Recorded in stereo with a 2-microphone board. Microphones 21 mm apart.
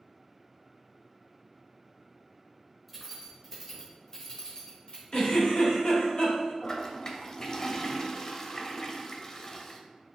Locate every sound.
2.9 s keys jangling: 5° right (ahead or behind), 1.5 m; by 5.0 s 45° left (ahead or behind), 1.8 m
5.1 s a giggle: 65° left (ahead or behind), 1.9 m
6.6 s a toilet flushing: 25° left (ahead or behind), 0.5 m